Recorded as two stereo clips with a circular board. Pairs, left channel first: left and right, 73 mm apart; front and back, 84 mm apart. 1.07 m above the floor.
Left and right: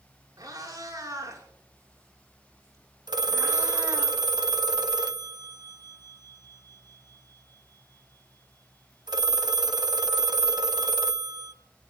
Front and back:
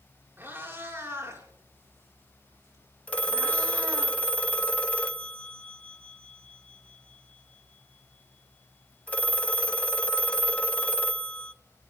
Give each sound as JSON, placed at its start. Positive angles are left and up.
{"t": 0.4, "sound": "a cat meowing", "azimuth_deg": -115, "distance_m": 5.0}
{"t": 3.1, "sound": "a phone ringing", "azimuth_deg": -75, "distance_m": 0.9}